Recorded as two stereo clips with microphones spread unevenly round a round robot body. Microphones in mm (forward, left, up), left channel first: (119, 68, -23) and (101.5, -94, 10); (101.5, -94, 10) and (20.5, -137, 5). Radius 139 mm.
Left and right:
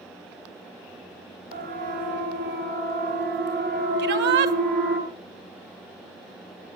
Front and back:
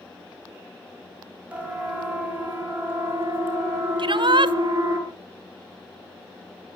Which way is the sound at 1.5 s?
75° right.